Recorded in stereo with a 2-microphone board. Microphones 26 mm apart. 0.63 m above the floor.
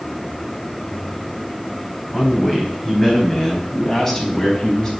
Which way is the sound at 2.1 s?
5° right (ahead or behind).